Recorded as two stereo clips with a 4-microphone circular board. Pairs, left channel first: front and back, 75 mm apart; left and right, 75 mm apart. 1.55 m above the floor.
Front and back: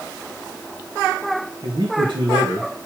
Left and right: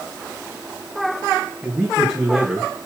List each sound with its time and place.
1.6 s a man speaking: 155° right, 1.9 m